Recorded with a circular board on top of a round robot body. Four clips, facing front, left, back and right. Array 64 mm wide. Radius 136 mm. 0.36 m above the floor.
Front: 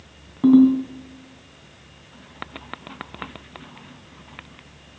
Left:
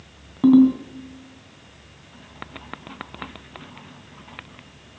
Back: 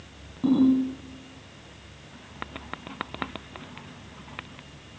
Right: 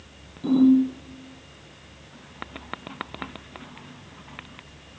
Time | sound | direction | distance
0.4 | a ringtone | 65° left | 3 m